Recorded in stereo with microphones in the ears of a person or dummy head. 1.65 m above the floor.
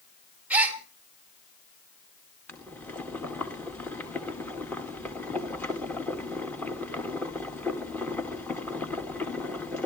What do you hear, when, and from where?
0.5 s a gasp: 5° right (ahead or behind), 2.5 m
2.5 s boiling: 10° left (ahead or behind), 1.8 m